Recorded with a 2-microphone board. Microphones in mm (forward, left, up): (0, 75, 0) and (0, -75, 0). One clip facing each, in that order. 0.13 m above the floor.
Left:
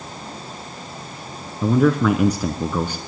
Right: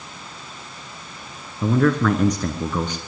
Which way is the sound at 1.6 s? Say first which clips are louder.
Left 2 dB; 10° left (ahead or behind).